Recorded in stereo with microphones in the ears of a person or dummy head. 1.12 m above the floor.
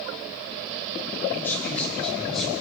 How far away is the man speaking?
About 4.5 m.